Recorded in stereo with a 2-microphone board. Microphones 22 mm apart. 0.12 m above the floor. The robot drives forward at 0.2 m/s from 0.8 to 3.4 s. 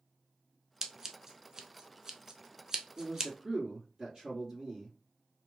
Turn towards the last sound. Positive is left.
turn(degrees=-30)  # may be behind; listen again after turning